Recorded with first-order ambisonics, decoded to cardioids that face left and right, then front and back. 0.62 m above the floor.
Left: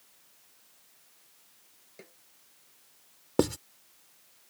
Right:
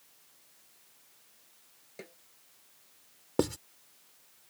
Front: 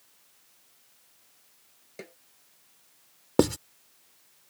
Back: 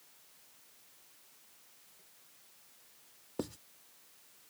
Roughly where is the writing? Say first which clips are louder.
Left 3 dB, front 18 dB; ahead.